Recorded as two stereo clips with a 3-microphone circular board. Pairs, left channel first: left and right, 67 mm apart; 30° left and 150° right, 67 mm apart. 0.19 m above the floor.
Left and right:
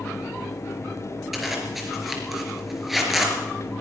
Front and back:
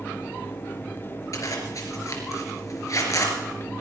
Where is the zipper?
5° right, 4 m.